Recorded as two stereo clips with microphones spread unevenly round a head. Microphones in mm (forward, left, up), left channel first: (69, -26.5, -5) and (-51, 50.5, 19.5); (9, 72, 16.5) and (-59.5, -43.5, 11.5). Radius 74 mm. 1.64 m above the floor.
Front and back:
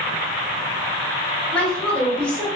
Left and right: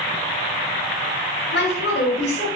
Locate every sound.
1.5 s a woman speaking: 50° left, 1.4 m